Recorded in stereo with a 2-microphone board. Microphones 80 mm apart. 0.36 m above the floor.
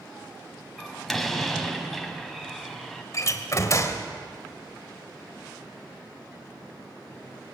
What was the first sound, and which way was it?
A door slam, centre (ahead or behind).